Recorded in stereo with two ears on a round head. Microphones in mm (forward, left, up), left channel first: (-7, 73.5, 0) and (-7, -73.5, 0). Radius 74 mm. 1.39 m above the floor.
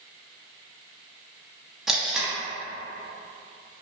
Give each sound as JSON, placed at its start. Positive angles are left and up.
{"t": 1.9, "sound": "tape being pulled", "side_deg": 0, "distance_m": 0.9}